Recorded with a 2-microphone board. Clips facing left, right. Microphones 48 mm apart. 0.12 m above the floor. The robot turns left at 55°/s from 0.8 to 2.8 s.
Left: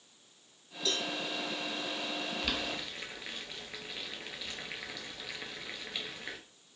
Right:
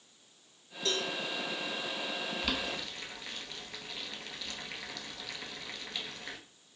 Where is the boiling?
5° right (ahead or behind), 0.6 m; by 6.4 s 15° left (ahead or behind), 0.6 m.